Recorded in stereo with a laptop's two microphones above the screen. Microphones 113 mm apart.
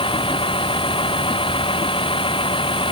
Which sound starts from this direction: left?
A vehicle, at 0.0 s.